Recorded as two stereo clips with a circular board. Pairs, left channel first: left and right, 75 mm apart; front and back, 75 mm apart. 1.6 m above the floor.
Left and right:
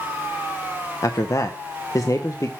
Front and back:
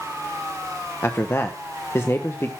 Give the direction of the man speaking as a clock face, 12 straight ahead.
10 o'clock.